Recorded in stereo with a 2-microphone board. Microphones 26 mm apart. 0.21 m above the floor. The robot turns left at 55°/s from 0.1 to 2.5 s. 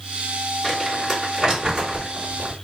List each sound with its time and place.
0.6 s crumpling: 10° left (ahead or behind), 2 m; by 2.5 s 40° right (ahead or behind), 2 m